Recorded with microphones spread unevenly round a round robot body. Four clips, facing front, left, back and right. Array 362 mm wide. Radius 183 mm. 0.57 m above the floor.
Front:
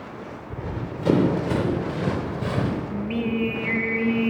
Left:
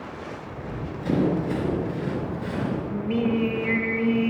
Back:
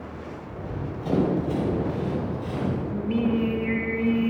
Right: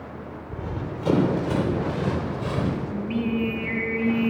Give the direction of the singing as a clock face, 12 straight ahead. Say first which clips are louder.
Left 2 dB, back 2 dB; 10 o'clock.